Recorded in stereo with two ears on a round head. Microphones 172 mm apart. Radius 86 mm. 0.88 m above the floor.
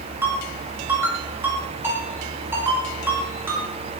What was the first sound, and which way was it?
A ringtone, 10° right (ahead or behind).